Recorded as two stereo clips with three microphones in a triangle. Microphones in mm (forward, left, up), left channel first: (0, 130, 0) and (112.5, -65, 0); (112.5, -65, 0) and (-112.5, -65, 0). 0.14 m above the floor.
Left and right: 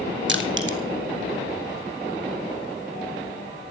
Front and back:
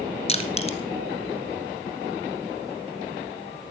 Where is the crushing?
55° right, 1.4 m.